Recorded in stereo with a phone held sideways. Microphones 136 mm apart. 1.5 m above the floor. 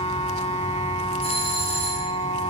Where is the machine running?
55° left (ahead or behind), 2 m.